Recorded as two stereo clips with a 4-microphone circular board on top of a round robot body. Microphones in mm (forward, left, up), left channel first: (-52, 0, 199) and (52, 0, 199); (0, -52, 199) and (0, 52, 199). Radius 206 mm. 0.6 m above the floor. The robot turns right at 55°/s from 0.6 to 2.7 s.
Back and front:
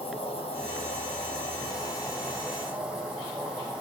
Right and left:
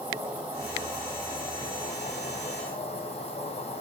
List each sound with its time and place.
0.0 s an insect: 160° left, 2 m; by 3.8 s 85° right, 2 m